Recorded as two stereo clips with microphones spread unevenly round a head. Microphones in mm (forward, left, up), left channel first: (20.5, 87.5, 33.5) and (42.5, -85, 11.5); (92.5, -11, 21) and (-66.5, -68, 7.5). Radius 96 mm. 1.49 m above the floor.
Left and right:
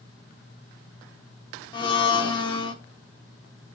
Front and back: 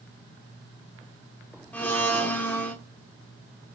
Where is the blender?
85° left, 1.2 m.